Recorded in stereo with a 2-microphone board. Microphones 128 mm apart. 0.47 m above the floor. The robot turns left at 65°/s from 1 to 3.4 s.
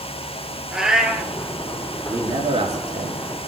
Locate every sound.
0.7 s a cat meowing: 5° right (ahead or behind), 2.5 m; by 1.3 s 25° right (ahead or behind), 2.5 m
2.1 s a man speaking: 25° right, 5.5 m; by 3.5 s 110° right, 5.5 m